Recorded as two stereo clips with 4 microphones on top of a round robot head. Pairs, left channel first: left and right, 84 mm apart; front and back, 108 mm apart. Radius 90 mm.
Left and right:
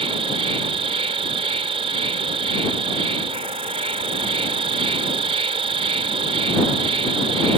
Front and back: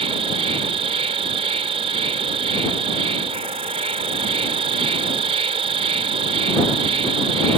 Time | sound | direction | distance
0.0 | an insect | 130° right | ?